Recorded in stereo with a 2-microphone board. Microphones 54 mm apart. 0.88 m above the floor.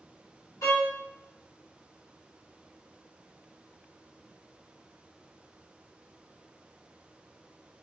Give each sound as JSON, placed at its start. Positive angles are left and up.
{"t": 0.6, "sound": "a violin", "side_deg": 75, "distance_m": 1.1}